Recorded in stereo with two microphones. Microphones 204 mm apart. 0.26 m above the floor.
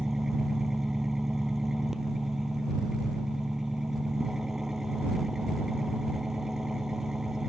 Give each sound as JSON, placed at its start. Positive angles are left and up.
{"t": 0.0, "sound": "an engine running", "side_deg": 0}